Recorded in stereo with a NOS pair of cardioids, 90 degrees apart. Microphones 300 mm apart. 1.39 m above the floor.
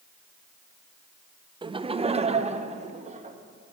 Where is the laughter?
15° right, 0.6 m; by 3.4 s 25° right, 1.9 m.